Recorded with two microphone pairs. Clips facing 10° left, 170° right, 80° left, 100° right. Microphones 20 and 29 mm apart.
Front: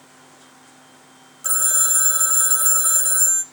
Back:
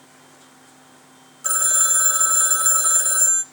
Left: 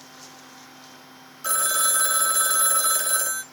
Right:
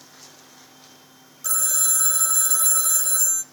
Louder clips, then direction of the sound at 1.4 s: Back 1 dB, left 3 dB; 125° left.